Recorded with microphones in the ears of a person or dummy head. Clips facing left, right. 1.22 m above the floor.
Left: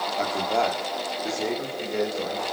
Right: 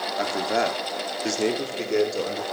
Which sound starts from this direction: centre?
A man speaking, at 0.2 s.